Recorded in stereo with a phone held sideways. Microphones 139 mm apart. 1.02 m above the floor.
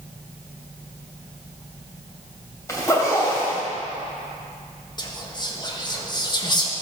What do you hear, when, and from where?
2.7 s a zipper: 20° left (ahead or behind), 2.5 m
5.0 s whispering: 30° left (ahead or behind), 1.4 m